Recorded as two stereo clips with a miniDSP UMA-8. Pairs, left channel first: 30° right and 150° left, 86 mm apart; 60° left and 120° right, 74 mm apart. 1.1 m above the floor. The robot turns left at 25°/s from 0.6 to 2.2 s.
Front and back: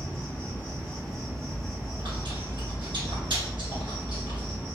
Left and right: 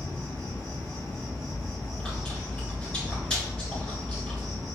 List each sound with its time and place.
0.0 s an insect: 100° right, 1.7 m; by 4.7 s 140° right, 1.7 m
1.5 s chewing: 160° left, 1.5 m; by 4.6 s 140° left, 1.5 m